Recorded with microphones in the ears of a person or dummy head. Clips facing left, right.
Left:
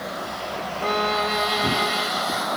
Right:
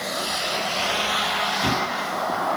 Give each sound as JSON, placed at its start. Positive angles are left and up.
{"t": 0.8, "sound": "a violin", "side_deg": 80}